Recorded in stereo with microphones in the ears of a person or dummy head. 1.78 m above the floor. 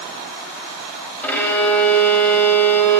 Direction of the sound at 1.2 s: 5° left (ahead or behind).